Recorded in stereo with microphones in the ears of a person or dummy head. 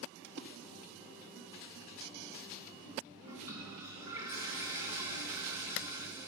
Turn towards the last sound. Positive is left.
turn(degrees=-20)  # may be behind; listen again after turning